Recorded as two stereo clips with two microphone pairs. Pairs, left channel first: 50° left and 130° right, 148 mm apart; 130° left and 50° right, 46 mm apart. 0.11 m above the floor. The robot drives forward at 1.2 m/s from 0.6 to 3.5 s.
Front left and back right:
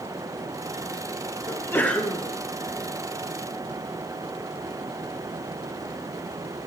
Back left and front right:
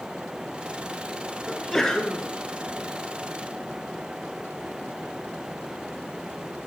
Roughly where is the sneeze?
Ahead left.